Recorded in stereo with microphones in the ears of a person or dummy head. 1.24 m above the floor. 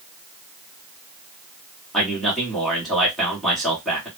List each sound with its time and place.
1.9 s a man speaking: centre (ahead or behind), 1.1 m